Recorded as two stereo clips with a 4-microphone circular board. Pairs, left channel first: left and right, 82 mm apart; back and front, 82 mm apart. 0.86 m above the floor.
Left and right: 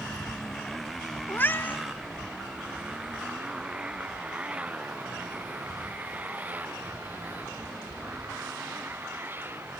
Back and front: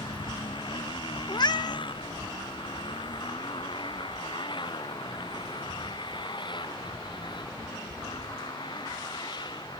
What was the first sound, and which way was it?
A motorcycle, 175° left.